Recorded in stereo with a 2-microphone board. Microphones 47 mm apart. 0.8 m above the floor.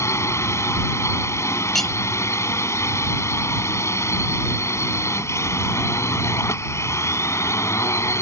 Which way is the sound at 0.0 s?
80° left.